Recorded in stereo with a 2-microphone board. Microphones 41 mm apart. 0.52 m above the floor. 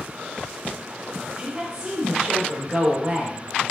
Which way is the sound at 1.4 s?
15° right (ahead or behind).